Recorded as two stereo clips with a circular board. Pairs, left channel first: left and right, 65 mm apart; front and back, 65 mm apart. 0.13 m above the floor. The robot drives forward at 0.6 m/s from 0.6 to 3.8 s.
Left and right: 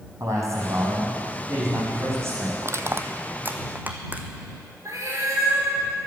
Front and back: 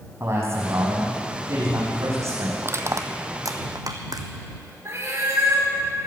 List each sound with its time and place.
0.2 s a man speaking: 130° right, 5.5 m; by 2.5 s 140° right, 6 m
2.6 s crushing: 130° right, 0.8 m; by 4.3 s 155° right, 1.4 m
4.8 s a cat meowing: 130° right, 4.5 m